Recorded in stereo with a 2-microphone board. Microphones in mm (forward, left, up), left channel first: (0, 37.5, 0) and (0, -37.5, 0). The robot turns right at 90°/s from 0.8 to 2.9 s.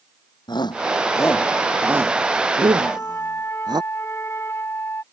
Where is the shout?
75° left (ahead or behind); by 3.8 s 65° right (ahead or behind).